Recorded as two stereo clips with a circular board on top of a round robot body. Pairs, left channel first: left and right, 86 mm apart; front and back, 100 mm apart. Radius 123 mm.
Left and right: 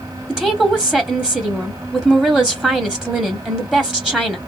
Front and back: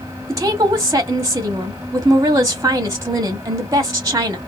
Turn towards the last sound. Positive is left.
turn(degrees=-165)